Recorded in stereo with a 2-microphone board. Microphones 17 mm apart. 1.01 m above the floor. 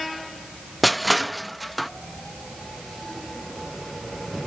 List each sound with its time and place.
0.8 s crushing: 5° left (ahead or behind), 0.6 m